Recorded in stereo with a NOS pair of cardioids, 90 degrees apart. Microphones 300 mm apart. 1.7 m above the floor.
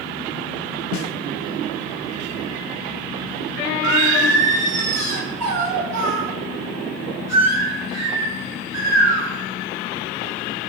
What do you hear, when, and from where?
0.9 s a snare drum: 65° left, 0.5 m
3.8 s singing: 60° right, 1.5 m